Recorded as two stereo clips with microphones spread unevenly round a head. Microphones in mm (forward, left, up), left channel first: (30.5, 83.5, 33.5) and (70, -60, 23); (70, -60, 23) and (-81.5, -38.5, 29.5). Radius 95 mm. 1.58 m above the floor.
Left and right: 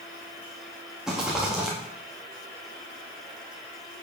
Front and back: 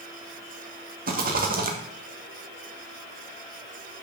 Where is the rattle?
165° right, 2 m.